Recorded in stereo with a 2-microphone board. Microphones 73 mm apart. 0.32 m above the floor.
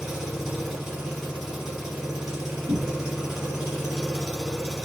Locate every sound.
0.0 s an engine running: 5° right (ahead or behind), 1.0 m
2.7 s a cupboard door: 55° right (ahead or behind), 0.7 m